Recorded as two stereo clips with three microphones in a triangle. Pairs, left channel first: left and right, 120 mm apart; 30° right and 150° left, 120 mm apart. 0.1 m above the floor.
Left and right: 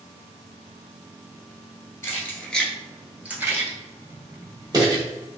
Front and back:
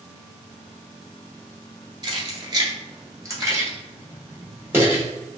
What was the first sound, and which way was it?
Keys jangling, 140° left.